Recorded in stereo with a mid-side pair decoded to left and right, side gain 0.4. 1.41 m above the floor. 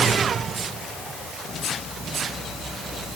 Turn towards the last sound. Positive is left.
No sound to turn to.